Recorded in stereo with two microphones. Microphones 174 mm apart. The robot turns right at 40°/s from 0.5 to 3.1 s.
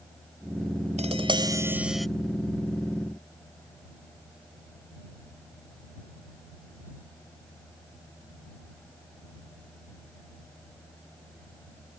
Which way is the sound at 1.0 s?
40° right.